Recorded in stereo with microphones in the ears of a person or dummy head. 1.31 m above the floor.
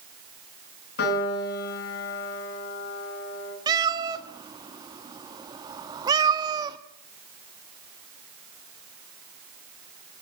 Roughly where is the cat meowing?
Right.